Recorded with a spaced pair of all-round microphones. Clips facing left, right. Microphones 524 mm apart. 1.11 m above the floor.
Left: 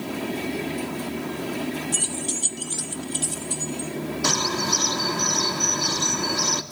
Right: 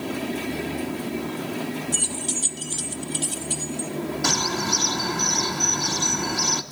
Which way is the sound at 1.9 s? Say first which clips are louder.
Even; centre (ahead or behind).